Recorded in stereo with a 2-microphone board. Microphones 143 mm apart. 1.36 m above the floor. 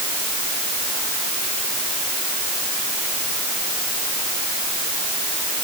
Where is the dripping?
I don't hear dripping.